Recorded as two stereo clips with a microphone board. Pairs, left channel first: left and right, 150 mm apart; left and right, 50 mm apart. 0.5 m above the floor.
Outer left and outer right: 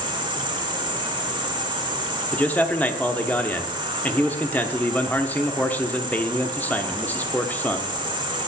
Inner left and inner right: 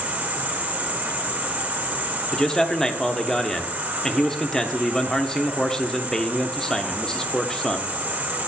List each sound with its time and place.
0.0 s an insect: 30° right (ahead or behind), 1.3 m
2.3 s a man speaking: 10° left (ahead or behind), 0.7 m